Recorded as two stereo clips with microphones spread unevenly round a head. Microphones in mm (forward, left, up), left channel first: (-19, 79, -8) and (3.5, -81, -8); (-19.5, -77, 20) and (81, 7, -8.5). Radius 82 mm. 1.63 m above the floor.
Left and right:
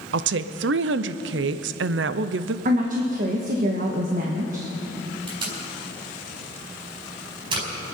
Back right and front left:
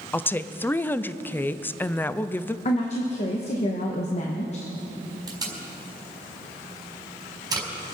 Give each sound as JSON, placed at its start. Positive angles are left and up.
{"t": 0.1, "sound": "a woman speaking", "azimuth_deg": -65, "distance_m": 0.6}
{"t": 2.6, "sound": "a woman speaking", "azimuth_deg": -115, "distance_m": 1.3}
{"t": 5.3, "sound": "tape being pulled", "azimuth_deg": -25, "distance_m": 4.5}